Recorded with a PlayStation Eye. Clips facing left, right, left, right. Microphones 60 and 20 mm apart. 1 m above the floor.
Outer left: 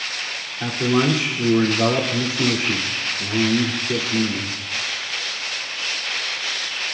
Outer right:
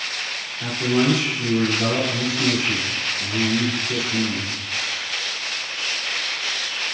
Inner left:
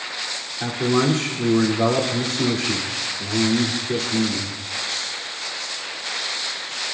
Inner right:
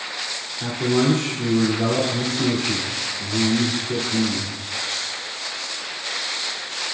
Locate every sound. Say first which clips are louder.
0.6 s a man speaking: outer left 1 dB, even; 55° left (ahead or behind), 2.5 m